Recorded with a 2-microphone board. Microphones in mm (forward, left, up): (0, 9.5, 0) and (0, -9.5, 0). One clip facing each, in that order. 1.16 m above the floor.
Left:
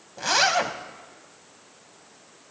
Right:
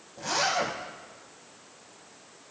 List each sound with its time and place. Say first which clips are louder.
0.2 s a zipper: left 6 dB; 45° left (ahead or behind), 0.6 m